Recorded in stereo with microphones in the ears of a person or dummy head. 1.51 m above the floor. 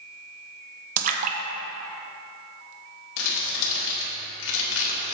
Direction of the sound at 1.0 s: 45° right (ahead or behind).